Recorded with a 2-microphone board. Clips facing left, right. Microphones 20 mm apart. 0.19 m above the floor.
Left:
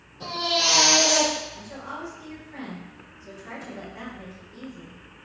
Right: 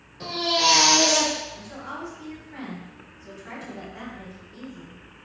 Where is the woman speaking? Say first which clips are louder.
Even; 10° right (ahead or behind), 1.8 m.